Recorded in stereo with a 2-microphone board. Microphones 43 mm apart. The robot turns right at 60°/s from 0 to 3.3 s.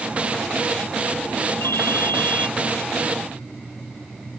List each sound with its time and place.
1.6 s a ringtone: 90° left; by 2.5 s 145° left